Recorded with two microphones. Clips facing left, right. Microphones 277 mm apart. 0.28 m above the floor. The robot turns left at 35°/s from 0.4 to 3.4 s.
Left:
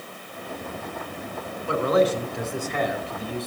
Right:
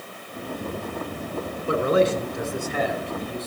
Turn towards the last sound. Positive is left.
turn(degrees=165)